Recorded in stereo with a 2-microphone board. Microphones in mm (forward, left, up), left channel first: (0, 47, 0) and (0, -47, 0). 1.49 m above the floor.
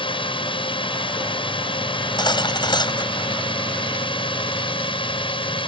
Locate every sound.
0.0 s a drone: 65° left (ahead or behind)
1.9 s cutlery clinking: 55° left (ahead or behind)